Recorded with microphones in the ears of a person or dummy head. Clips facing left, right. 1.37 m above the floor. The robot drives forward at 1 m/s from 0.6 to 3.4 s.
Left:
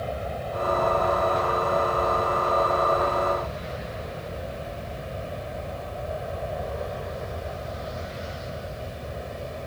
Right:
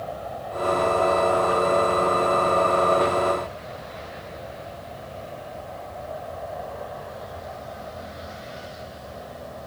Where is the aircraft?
35° left (ahead or behind); by 9.7 s 40° left (ahead or behind).